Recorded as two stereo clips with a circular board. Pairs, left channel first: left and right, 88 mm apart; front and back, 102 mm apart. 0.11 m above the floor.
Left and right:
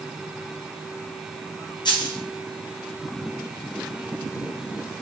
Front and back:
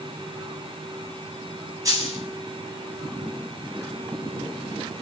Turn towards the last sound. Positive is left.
turn(degrees=125)